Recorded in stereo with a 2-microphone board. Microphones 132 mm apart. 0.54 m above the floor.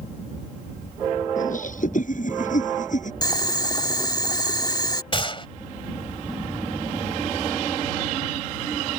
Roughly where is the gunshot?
Left.